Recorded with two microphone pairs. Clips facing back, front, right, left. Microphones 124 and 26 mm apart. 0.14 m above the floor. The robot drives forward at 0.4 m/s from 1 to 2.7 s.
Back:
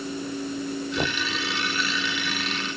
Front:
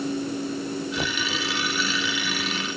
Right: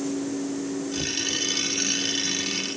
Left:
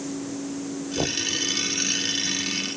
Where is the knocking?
105° left.